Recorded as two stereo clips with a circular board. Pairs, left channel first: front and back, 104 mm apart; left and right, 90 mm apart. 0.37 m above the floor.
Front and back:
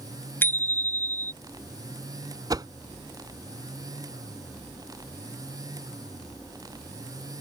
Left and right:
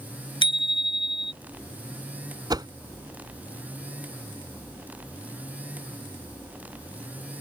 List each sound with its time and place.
0.4 s a bicycle bell: 70° left
2.5 s a whoosh: 130° right